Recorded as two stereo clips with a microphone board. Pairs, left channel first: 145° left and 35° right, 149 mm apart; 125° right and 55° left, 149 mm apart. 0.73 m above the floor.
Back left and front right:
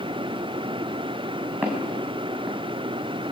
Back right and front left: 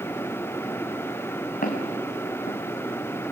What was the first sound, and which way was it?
Footsteps, 115° right.